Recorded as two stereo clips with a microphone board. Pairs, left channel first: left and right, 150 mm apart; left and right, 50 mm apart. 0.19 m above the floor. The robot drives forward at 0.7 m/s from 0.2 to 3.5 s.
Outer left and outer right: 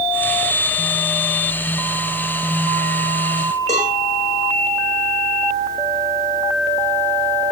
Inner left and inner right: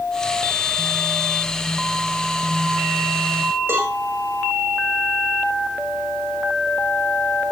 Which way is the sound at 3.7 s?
50° right (ahead or behind).